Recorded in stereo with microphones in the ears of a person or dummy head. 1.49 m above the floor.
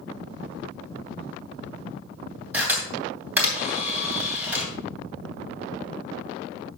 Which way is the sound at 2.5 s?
Centre (ahead or behind).